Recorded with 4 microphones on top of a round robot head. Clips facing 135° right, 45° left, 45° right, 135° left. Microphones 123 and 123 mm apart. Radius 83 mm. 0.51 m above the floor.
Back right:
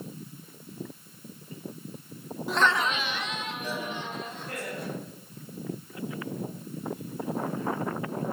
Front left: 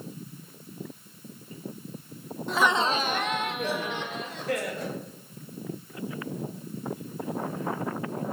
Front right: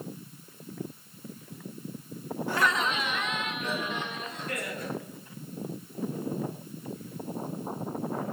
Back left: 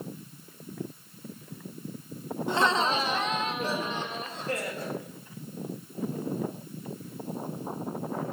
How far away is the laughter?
About 0.7 m.